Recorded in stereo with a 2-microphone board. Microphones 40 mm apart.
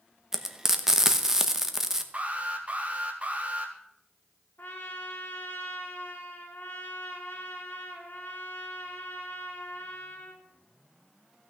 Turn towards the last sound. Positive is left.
turn(degrees=65)  # may be behind; listen again after turning